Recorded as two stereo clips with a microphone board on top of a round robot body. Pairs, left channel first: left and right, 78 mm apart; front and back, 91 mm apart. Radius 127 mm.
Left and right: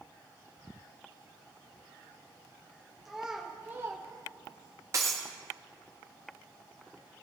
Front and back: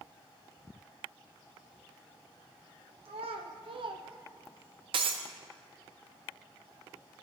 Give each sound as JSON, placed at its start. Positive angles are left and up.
{"t": 3.0, "sound": "a child speaking", "azimuth_deg": 180, "distance_m": 1.0}
{"t": 4.9, "sound": "breaking glass", "azimuth_deg": -150, "distance_m": 0.6}